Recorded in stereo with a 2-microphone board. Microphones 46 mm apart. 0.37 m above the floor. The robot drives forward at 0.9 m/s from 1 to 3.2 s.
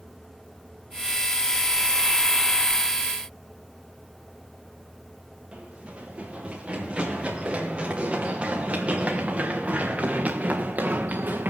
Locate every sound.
5.5 s running footsteps: 20° right (ahead or behind), 5.5 m; by 11.5 s 50° right (ahead or behind), 1.5 m